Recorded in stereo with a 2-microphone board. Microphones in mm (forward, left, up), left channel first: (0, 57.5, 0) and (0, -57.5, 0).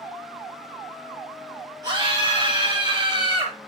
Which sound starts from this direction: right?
A scream, at 1.8 s.